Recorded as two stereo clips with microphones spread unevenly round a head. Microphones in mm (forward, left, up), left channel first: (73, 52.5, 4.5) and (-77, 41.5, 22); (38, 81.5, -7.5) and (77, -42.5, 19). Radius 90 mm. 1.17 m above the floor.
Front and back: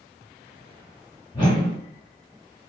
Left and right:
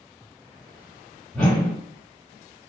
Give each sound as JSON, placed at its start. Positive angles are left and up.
{"t": 1.3, "sound": "a whoosh", "azimuth_deg": 5, "distance_m": 1.0}